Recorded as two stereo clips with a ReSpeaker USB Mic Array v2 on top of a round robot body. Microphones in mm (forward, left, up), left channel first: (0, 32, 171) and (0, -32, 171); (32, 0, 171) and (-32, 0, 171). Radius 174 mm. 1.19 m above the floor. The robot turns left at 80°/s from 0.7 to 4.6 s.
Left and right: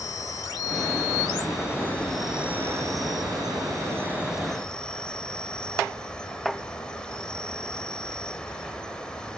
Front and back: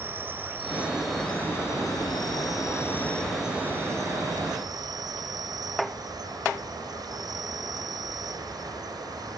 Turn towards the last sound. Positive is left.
turn(degrees=170)